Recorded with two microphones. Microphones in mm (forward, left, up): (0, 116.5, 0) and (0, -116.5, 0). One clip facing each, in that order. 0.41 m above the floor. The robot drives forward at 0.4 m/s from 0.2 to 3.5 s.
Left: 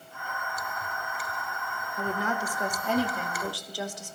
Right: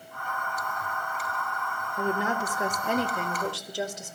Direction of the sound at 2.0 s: 25° right (ahead or behind).